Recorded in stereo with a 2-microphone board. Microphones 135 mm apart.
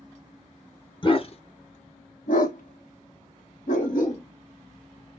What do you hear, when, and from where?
1.0 s a dog barking: 35° left (ahead or behind), 0.9 m; by 4.2 s 60° left (ahead or behind), 1.5 m